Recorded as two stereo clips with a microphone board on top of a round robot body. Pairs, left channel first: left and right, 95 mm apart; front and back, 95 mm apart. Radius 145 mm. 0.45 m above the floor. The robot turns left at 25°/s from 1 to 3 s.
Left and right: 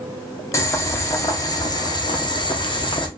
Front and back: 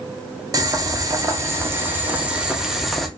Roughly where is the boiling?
Behind left.